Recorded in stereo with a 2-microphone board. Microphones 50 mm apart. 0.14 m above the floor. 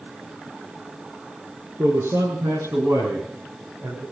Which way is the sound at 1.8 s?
65° right (ahead or behind).